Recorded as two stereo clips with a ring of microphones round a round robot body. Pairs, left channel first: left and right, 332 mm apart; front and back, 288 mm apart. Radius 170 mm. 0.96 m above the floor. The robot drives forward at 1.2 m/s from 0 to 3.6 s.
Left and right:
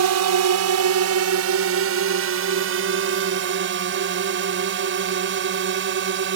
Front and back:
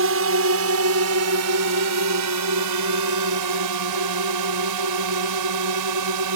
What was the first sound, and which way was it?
A drone, 130° right.